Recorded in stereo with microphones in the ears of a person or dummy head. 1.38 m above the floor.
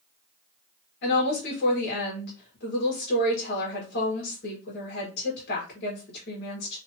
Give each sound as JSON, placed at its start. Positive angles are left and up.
{"t": 1.0, "sound": "a woman speaking", "side_deg": 60, "distance_m": 1.3}